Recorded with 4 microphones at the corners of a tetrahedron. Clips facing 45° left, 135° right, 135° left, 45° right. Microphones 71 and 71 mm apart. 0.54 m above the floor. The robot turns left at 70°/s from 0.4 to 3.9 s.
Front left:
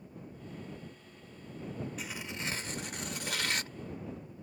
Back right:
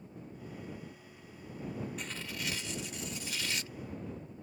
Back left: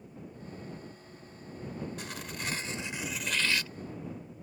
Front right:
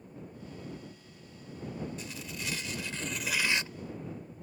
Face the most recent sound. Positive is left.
turn(degrees=-5)